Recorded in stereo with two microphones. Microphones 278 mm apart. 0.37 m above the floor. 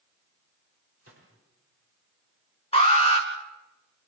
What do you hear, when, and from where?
1.0 s a gunshot: 55° right (ahead or behind), 7.5 m
2.7 s an alarm: 20° left (ahead or behind), 3 m